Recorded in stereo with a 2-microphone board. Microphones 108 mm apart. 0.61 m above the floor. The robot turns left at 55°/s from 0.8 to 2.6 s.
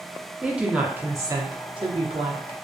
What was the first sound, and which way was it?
A woman speaking, 10° right.